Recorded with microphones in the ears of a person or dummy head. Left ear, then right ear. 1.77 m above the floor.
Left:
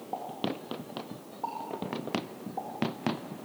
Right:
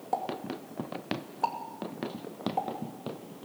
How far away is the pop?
About 2.5 m.